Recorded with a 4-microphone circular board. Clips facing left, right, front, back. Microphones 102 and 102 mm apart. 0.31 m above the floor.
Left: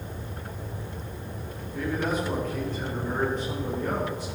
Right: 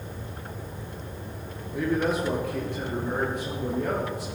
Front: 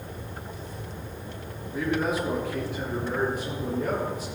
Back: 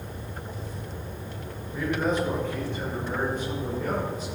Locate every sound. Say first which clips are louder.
1.7 s a man speaking: right 3 dB, even; 80° right, 4.5 m